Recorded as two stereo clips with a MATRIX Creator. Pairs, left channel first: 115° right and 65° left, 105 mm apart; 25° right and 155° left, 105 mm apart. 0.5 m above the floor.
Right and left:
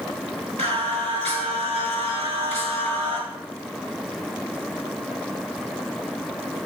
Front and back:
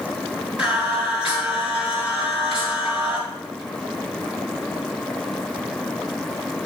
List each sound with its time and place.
0.6 s singing: 80° left, 7.5 m